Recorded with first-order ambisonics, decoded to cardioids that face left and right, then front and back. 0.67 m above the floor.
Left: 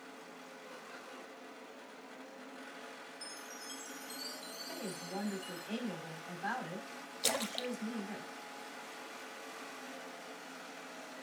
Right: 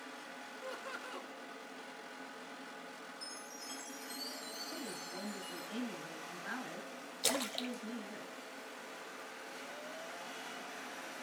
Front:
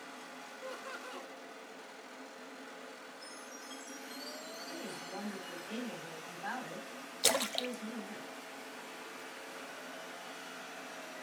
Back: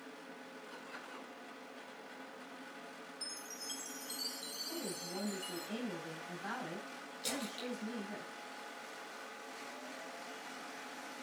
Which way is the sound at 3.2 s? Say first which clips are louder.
Left 1 dB, back 2 dB; 170° left.